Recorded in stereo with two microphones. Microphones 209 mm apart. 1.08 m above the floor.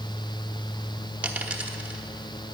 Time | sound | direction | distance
1.2 | a dropped coin | 5° right (ahead or behind) | 1.0 m